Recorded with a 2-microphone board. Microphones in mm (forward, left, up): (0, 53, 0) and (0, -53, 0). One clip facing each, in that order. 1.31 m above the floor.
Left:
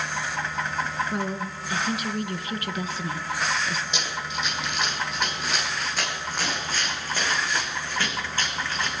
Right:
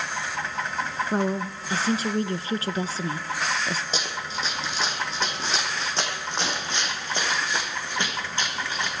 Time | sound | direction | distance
1.1 | a woman speaking | 35° right (ahead or behind) | 0.7 m
3.9 | running footsteps | 35° right (ahead or behind) | 3.5 m